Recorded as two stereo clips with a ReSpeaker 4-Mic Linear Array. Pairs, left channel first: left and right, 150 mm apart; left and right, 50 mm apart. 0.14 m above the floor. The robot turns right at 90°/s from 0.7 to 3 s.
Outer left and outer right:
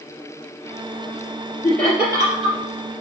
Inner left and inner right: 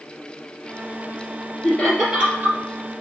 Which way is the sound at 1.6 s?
30° left (ahead or behind).